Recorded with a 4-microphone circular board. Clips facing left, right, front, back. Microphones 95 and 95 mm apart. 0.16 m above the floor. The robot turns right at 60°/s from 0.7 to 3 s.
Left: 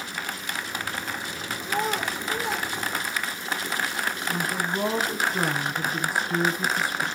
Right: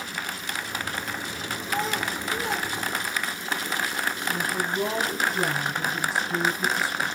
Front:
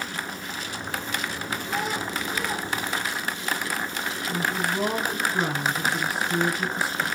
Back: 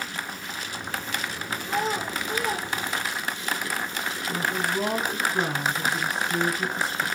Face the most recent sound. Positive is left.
turn(degrees=80)